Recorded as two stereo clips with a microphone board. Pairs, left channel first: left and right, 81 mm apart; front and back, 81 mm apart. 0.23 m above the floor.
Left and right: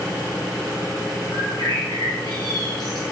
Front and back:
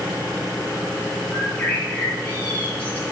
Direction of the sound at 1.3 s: 65° left.